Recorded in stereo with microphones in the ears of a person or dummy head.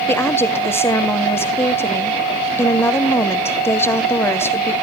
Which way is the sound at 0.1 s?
20° left (ahead or behind).